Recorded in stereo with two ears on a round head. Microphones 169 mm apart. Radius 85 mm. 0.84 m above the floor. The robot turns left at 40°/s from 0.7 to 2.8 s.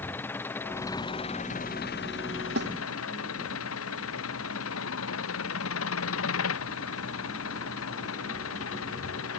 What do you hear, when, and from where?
0.0 s an engine running: 170° left; by 9.4 s 85° left
2.6 s a snare drum: 55° right (ahead or behind); by 2.7 s 65° right (ahead or behind)